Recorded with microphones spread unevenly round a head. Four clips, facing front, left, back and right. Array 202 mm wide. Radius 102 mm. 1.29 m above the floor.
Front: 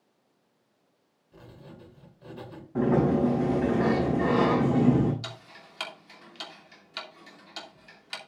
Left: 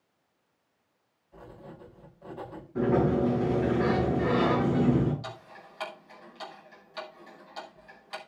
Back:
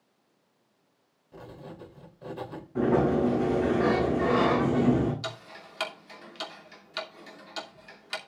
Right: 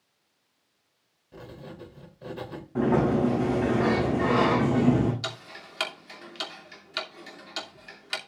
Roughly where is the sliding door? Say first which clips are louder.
Right 2 dB, even; ahead right.